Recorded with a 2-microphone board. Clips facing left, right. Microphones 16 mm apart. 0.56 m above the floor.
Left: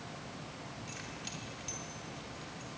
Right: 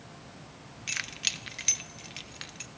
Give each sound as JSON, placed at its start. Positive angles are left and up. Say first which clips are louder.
{"t": 0.9, "sound": "keys jangling", "louder": "right 16 dB", "side_deg": -60, "distance_m": 0.8}